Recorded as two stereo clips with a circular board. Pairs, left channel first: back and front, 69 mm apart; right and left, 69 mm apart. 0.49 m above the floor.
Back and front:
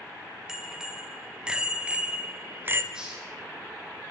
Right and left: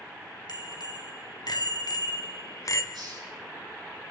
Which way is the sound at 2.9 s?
80° left.